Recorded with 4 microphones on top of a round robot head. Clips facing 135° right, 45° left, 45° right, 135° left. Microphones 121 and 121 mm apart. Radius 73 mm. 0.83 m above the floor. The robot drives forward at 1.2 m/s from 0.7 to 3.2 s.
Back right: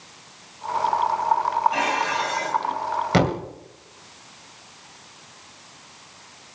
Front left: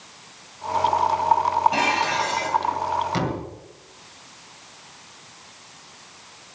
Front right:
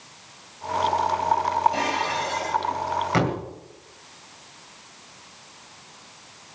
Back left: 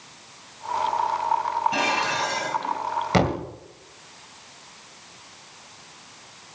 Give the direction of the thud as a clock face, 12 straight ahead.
5 o'clock.